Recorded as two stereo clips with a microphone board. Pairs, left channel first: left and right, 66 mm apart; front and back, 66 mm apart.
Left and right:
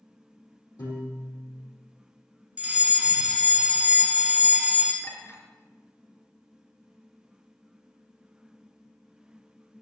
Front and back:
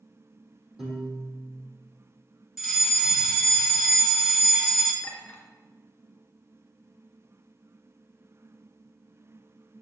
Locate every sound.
0.8 s a piano: 95° left, 4 m
2.6 s a fire alarm: 105° right, 2.0 m
5.0 s a clink: 55° left, 2 m